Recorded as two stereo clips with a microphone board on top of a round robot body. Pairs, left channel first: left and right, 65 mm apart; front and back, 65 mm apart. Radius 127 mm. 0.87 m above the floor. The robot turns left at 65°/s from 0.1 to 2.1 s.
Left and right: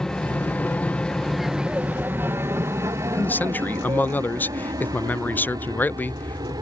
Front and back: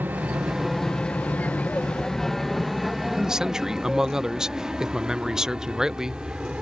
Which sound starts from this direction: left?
A man speaking, at 3.1 s.